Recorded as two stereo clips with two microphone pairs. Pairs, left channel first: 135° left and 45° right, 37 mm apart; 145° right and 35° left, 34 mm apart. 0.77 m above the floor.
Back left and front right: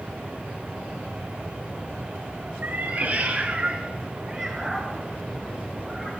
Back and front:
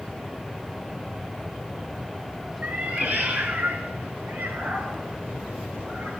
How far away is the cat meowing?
About 1.6 m.